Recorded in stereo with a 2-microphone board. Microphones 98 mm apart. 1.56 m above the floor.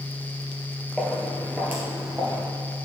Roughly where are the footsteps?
Centre.